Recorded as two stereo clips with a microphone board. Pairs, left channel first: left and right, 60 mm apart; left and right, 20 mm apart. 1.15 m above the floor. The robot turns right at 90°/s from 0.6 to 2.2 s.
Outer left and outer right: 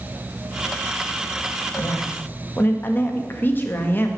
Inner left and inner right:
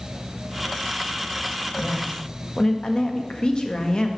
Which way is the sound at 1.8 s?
105° left.